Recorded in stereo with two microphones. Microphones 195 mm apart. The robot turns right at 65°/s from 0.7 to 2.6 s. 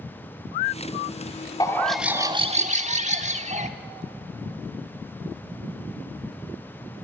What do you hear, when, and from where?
1.6 s a bird: 160° left, 1.2 m; by 3.7 s 135° right, 1.2 m